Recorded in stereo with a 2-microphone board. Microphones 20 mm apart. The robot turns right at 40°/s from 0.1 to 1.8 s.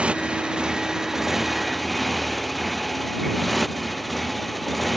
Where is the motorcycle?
70° right; by 5.0 s straight ahead.